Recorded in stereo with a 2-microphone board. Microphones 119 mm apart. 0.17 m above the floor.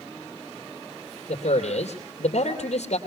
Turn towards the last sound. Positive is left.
turn(degrees=65)  # may be behind; listen again after turning